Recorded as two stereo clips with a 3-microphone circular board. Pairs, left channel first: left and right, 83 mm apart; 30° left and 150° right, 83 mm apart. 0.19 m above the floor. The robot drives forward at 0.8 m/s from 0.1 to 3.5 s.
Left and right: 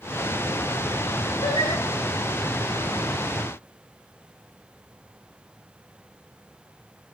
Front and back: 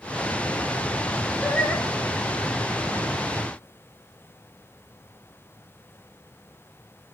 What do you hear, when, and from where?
1.4 s singing: 110° left, 5 m